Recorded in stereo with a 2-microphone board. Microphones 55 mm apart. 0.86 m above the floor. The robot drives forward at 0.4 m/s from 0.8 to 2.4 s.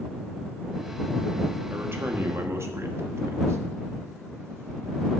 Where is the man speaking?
45° right (ahead or behind), 1.4 m; by 3.6 s 55° right (ahead or behind), 1.2 m.